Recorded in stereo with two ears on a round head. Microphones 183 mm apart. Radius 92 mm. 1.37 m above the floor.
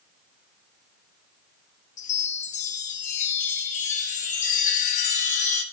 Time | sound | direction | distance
2.0 | a chime | 35° left (ahead or behind) | 0.8 m